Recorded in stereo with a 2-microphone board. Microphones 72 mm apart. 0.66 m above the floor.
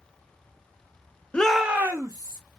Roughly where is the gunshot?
No gunshot in this recording.